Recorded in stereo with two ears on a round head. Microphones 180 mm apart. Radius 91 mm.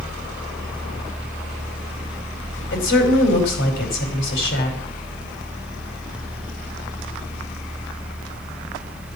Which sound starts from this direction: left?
A woman speaking, at 2.7 s.